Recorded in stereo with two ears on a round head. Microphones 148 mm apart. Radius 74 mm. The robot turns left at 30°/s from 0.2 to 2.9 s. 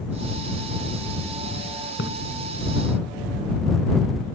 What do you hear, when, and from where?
2.0 s a splash: 80° left